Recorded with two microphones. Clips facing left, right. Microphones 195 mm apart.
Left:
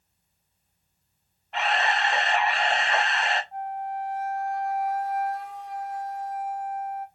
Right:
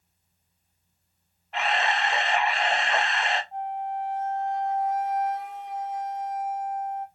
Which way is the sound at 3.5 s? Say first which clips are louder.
Right 1 dB; 20° right (ahead or behind).